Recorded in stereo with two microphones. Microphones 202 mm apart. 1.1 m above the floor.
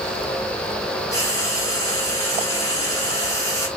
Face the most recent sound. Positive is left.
turn(degrees=15)  # may be behind; listen again after turning